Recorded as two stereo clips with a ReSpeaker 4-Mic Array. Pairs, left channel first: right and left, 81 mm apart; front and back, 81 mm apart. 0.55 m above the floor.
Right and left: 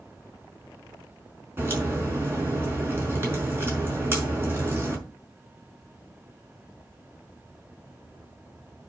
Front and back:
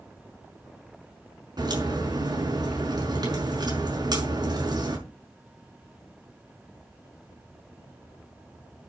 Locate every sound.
1.6 s a crack: 150° left, 5.5 m